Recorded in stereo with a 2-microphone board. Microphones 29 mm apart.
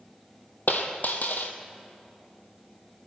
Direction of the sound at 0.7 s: 70° left (ahead or behind).